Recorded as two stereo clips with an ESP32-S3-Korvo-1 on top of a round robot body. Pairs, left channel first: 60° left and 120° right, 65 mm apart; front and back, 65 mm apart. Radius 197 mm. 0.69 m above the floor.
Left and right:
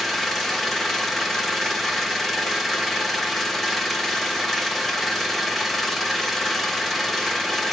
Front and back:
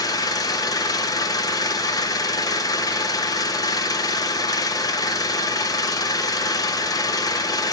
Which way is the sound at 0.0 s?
30° right.